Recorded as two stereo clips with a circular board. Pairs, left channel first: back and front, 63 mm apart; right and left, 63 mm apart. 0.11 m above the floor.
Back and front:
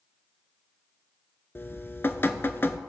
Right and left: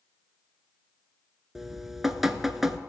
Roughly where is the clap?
I don't hear a clap.